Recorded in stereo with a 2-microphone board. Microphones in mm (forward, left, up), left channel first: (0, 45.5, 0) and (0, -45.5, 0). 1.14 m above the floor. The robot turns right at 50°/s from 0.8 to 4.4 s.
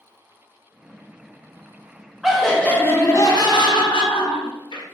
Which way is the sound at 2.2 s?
5° right.